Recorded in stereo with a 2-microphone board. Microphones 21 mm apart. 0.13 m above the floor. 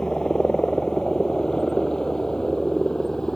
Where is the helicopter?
30° left (ahead or behind); by 3.4 s 25° left (ahead or behind).